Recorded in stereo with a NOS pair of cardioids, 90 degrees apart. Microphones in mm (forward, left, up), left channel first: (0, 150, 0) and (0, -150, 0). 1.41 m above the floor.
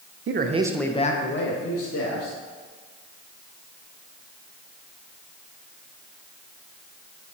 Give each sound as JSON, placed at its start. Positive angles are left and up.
{"t": 0.3, "sound": "a man speaking", "azimuth_deg": -40, "distance_m": 1.0}